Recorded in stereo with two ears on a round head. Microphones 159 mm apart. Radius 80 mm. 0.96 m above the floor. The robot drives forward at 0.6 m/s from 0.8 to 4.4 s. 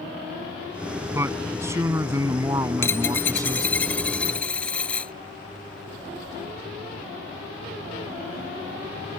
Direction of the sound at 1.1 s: 15° right (ahead or behind).